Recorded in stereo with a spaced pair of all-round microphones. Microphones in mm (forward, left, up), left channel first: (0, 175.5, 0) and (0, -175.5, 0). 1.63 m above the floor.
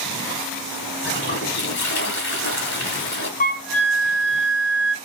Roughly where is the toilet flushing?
Left.